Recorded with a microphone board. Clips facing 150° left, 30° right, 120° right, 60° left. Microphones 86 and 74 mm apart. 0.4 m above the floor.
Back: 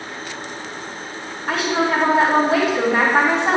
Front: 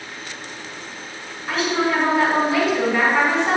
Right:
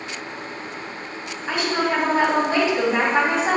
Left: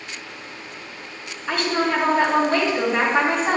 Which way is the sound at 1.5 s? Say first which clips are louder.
Back 1 dB, left 1 dB; 175° left.